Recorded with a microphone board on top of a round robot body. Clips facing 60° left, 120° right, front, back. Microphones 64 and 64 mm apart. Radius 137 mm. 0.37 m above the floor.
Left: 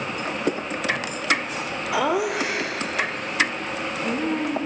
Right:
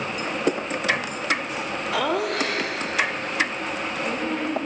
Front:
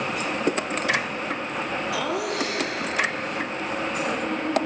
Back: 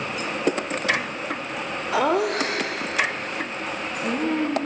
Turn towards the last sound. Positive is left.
turn(degrees=140)